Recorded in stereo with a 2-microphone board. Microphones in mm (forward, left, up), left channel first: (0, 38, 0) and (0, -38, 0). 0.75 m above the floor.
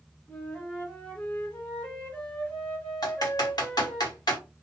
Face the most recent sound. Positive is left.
turn(degrees=60)  # may be behind; listen again after turning